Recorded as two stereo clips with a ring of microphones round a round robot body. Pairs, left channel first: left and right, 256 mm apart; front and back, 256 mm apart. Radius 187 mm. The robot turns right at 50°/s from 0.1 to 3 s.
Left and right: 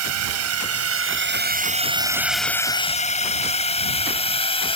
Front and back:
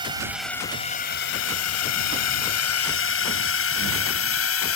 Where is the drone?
105° right; by 4.8 s 20° left.